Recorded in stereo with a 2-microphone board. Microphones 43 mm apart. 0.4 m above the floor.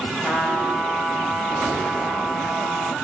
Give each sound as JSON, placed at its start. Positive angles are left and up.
{"t": 0.2, "sound": "a trumpet", "side_deg": 0, "distance_m": 1.4}